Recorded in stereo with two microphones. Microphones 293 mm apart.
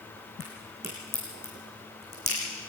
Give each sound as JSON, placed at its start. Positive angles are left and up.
{"t": 0.4, "sound": "a crack", "side_deg": 45, "distance_m": 6.5}